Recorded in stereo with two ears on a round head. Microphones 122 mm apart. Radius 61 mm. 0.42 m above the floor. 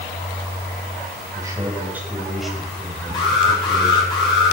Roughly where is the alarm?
Left.